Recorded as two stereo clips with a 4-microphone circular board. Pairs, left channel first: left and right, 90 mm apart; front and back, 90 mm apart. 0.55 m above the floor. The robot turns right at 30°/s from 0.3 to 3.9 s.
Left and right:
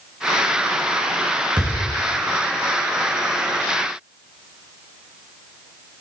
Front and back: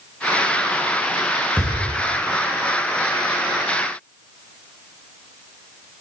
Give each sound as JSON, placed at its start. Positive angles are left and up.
{"t": 1.6, "sound": "a thud", "azimuth_deg": -75, "distance_m": 8.0}